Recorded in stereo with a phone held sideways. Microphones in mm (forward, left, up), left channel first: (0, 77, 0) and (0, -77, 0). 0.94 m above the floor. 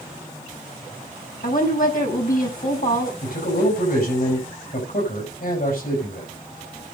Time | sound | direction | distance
1.4 | a woman speaking | 70° left (ahead or behind) | 5.5 m
3.2 | a man speaking | 80° left | 6 m